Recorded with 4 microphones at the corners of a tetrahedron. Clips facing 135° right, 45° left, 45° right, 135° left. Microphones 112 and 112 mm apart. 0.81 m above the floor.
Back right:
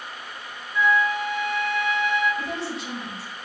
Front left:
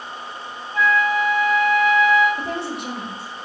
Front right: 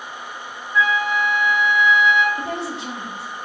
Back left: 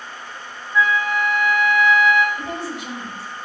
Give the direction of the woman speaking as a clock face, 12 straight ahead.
11 o'clock.